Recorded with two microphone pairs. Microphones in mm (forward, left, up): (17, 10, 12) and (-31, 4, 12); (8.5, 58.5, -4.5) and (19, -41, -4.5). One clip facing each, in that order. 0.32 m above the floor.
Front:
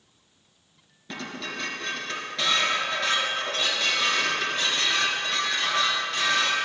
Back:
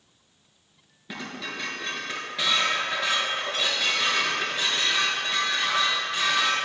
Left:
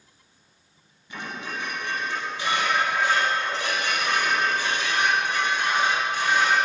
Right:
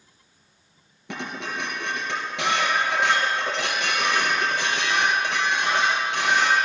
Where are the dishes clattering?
90° right, 3.5 m.